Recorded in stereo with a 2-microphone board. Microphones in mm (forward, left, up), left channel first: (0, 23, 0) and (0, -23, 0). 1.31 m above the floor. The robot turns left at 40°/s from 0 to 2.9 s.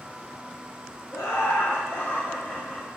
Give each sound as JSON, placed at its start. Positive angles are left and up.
{"t": 1.1, "sound": "laughter", "azimuth_deg": 85, "distance_m": 1.1}